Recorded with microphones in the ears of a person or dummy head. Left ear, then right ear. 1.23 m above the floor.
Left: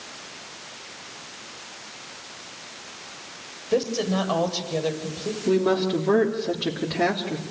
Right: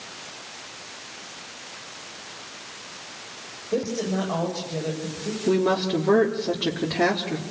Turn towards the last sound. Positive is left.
turn(degrees=-5)  # may be behind; listen again after turning